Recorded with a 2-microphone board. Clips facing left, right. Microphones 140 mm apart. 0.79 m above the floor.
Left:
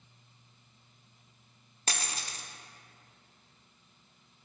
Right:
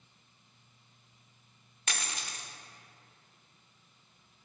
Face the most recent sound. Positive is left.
turn(degrees=35)  # may be behind; listen again after turning